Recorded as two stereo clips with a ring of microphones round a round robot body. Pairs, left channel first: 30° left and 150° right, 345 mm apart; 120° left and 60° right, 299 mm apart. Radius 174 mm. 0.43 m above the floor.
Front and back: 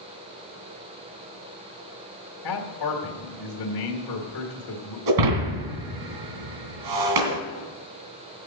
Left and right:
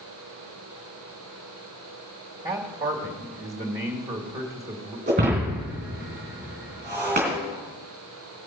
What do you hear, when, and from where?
2.4 s a man speaking: 10° left, 1.8 m
5.1 s breaking glass: 130° right, 2.5 m